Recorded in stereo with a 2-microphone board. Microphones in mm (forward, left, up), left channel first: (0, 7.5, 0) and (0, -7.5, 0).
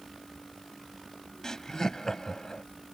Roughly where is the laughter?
Left.